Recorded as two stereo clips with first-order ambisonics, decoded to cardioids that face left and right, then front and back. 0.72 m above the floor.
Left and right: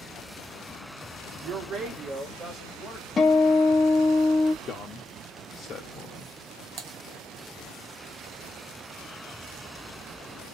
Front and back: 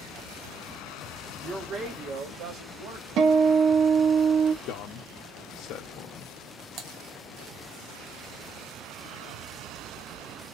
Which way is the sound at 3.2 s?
155° left.